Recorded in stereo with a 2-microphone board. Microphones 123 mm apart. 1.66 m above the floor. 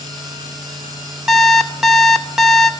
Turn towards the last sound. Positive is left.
turn(degrees=-5)  # may be behind; listen again after turning